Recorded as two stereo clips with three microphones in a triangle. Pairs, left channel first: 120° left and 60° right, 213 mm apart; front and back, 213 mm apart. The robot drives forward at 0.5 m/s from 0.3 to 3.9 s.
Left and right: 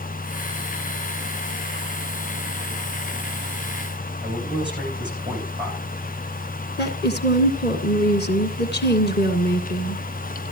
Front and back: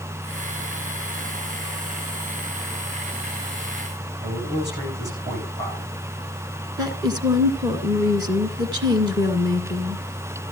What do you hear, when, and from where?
4.2 s a man speaking: 145° right, 10 m
6.8 s a woman speaking: 115° left, 2.0 m